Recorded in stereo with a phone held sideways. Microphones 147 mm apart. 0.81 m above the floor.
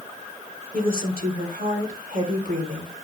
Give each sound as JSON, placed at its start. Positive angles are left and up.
{"t": 0.7, "sound": "a woman speaking", "side_deg": -75, "distance_m": 3.0}